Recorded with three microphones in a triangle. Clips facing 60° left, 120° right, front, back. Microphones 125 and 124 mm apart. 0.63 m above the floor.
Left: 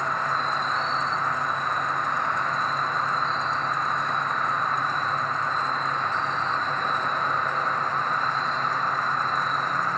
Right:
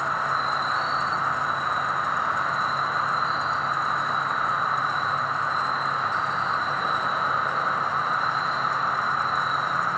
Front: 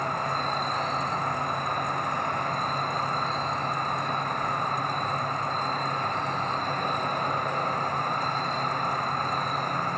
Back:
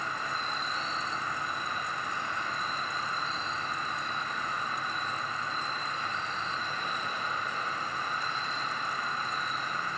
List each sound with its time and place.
0.0 s an insect: 35° right, 0.8 m